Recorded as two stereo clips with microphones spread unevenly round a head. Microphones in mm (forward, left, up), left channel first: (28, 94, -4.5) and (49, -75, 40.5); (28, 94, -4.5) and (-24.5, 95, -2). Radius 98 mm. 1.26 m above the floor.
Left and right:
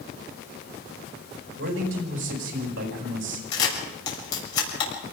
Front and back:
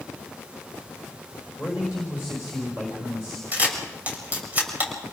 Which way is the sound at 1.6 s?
95° right.